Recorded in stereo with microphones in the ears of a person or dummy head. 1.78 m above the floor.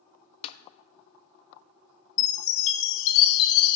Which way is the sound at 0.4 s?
40° left (ahead or behind).